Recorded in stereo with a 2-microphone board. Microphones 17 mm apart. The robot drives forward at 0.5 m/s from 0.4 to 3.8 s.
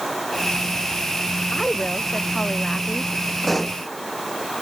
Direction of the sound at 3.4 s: 5° left (ahead or behind).